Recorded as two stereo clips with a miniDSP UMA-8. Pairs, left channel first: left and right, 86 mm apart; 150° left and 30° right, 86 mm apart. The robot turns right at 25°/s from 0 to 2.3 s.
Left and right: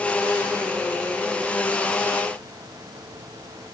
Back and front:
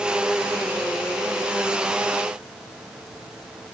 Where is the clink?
No clink in this recording.